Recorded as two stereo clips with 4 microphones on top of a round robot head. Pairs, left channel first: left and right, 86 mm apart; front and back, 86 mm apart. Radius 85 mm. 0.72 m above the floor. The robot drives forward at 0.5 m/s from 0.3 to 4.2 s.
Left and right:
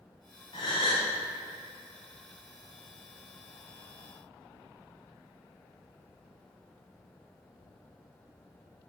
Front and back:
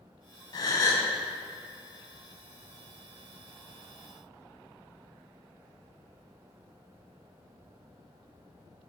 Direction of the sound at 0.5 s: 35° left.